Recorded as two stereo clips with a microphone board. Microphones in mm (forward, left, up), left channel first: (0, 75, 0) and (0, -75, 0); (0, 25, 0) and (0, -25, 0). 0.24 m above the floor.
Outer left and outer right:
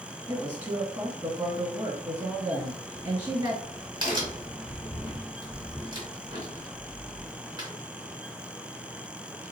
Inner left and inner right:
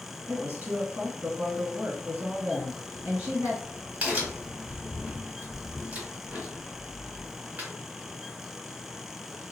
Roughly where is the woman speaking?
Right.